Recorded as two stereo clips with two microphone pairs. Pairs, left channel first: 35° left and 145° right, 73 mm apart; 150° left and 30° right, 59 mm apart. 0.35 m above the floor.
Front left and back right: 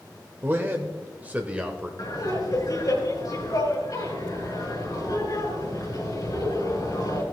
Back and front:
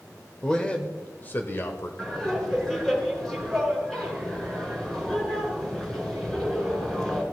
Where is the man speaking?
150° right, 1.0 m; by 1.9 s 145° left, 1.2 m.